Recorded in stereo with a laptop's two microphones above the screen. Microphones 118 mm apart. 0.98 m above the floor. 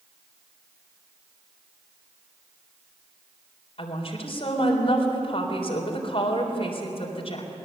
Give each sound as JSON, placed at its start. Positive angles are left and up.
{"t": 3.8, "sound": "a woman speaking", "side_deg": 55, "distance_m": 3.5}